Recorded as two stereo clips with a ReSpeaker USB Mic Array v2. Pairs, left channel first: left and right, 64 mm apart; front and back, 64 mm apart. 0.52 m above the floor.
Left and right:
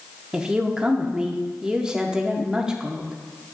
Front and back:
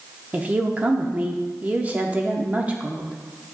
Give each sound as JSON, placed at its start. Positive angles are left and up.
{"t": 0.3, "sound": "a woman speaking", "azimuth_deg": -150, "distance_m": 0.7}